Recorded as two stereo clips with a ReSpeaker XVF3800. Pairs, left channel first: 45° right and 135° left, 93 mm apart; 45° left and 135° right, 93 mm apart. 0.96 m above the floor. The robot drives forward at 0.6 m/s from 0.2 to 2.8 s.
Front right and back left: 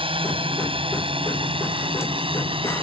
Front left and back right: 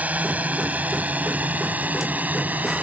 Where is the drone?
150° left; by 2.8 s 155° left.